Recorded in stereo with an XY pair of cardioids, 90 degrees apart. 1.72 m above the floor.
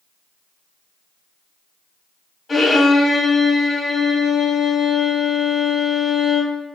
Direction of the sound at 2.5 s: 40° left.